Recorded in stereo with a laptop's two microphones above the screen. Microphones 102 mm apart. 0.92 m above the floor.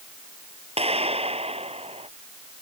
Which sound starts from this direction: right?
A clap, at 0.8 s.